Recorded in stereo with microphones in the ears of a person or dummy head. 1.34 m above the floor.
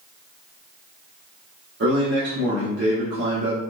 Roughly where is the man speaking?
Right.